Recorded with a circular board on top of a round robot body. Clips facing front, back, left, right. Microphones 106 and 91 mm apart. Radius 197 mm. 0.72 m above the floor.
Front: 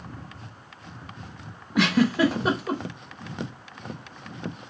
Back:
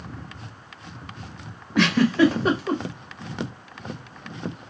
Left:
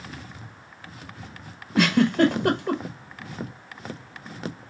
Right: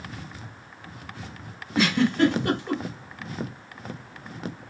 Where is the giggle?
85° left, 0.9 m.